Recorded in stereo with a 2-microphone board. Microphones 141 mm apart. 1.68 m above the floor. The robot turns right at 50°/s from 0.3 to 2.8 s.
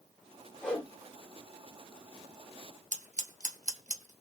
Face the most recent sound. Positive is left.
turn(degrees=-60)  # may be behind; listen again after turning